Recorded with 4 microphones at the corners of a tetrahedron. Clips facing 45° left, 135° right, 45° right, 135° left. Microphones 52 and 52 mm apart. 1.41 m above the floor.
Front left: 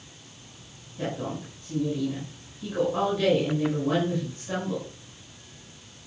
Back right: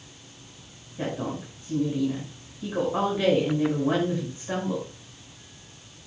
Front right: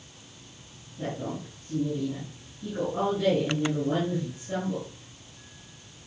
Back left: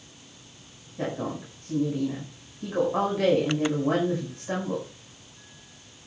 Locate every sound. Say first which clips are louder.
1.0 s a woman speaking: back right 1 dB, back left 3 dB; 155° left, 5.5 m